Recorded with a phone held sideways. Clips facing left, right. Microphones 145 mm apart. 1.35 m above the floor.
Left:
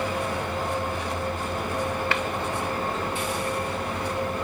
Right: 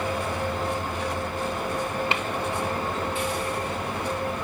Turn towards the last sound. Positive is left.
turn(degrees=-20)  # may be behind; listen again after turning